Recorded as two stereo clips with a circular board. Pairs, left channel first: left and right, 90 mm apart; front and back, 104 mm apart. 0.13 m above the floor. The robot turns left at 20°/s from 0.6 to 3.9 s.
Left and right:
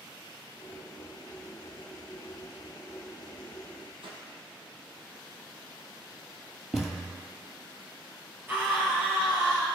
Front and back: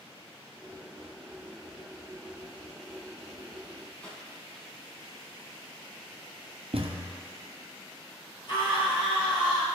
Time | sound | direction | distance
4.0 | a whoosh | 80° right | 1.9 m
6.7 | a thud | 175° left | 1.9 m
8.5 | a scream | 25° right | 3 m